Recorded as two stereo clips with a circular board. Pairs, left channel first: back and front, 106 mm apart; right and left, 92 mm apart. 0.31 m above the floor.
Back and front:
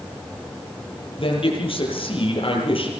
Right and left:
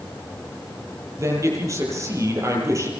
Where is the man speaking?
145° left, 9 m.